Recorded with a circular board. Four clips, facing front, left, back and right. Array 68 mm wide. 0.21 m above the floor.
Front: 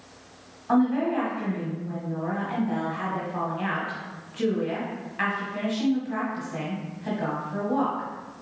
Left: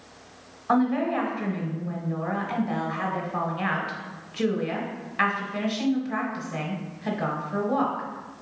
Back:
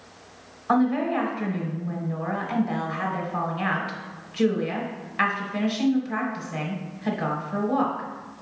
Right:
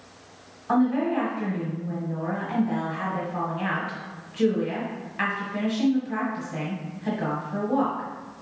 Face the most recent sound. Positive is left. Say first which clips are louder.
# right 1 dB, back 1 dB
turn(degrees=145)